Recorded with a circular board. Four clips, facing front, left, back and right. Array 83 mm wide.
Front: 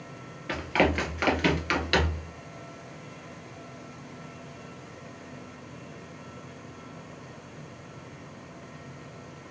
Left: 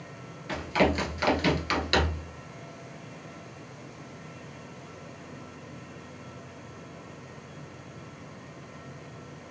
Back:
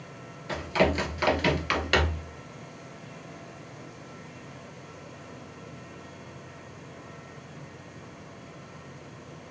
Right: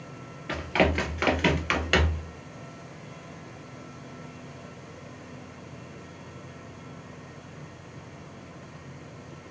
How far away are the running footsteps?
About 1.4 m.